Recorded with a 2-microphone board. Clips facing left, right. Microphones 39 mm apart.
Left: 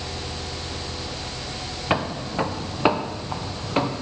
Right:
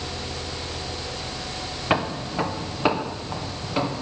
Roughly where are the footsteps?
Centre.